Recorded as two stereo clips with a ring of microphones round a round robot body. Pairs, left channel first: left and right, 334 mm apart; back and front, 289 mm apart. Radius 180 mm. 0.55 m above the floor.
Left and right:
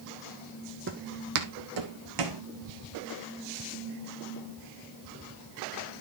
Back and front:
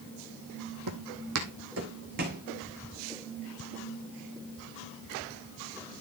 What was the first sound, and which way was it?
Footsteps, 35° right.